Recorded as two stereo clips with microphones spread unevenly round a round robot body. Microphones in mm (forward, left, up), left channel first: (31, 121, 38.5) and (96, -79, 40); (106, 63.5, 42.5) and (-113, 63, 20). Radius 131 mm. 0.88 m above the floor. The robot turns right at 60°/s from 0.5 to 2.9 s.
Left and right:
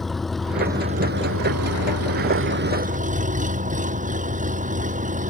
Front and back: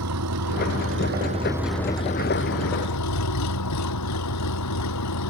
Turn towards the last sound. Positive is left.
turn(degrees=-20)